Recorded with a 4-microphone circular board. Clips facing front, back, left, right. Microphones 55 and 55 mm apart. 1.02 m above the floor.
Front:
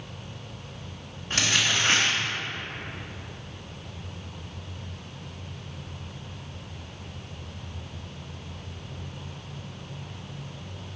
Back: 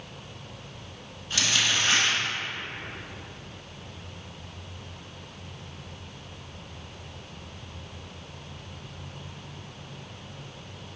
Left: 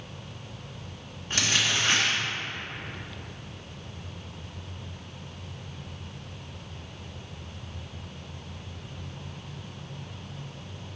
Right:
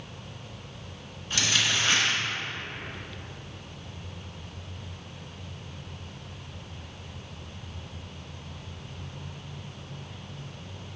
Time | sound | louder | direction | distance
1.3 | crumpling | front 1 dB, even | 45° left | 1.7 m